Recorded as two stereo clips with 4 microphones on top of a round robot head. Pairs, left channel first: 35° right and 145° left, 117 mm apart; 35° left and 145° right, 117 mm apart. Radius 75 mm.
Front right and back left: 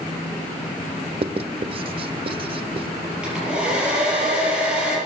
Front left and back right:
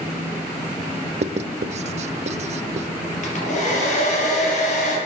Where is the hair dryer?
60° left, 5 m.